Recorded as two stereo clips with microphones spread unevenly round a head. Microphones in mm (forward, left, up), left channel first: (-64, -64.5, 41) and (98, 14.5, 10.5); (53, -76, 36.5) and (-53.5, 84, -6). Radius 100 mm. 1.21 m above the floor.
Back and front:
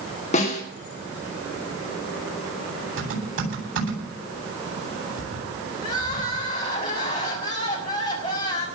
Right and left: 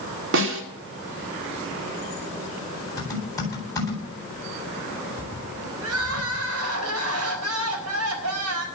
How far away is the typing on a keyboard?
About 9 m.